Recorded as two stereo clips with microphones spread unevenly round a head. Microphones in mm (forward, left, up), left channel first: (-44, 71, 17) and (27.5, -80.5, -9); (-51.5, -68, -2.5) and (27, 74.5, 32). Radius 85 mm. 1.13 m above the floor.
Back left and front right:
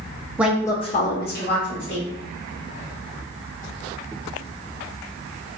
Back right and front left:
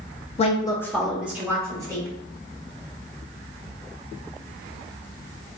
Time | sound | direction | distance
0.4 | a woman speaking | 135° right | 0.6 m